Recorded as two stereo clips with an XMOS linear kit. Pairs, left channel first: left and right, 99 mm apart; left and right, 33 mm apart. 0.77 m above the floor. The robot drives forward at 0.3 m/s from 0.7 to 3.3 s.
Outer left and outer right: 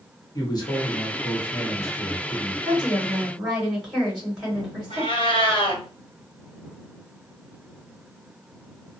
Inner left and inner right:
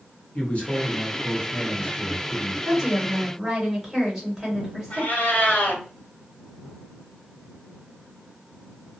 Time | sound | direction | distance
0.3 | a man speaking | 40° left (ahead or behind) | 1.2 m
2.6 | a woman speaking | 5° right (ahead or behind) | 1.7 m
4.9 | a cat meowing | 70° left (ahead or behind) | 1.2 m